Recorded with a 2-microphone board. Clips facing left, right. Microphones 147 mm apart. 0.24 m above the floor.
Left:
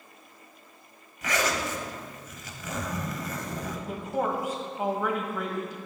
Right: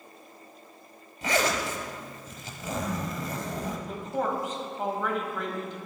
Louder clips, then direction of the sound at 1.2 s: Right 2 dB; 30° right (ahead or behind).